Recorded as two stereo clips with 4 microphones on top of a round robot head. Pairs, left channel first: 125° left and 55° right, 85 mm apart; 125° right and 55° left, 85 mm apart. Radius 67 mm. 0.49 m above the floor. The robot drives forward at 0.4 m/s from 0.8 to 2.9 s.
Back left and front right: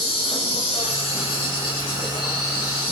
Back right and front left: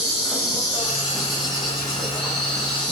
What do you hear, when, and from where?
0.0 s an insect: 135° left, 0.7 m; by 2.9 s 160° left, 1.4 m